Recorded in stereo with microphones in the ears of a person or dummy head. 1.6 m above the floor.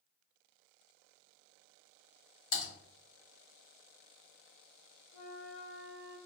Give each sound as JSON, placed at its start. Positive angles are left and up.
{"t": 2.5, "sound": "typing on a keyboard", "side_deg": 80, "distance_m": 1.2}
{"t": 5.1, "sound": "a flute", "side_deg": 60, "distance_m": 1.1}